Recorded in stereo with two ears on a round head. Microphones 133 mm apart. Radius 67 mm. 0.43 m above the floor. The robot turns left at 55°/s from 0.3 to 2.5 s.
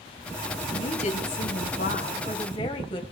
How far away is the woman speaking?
About 2 m.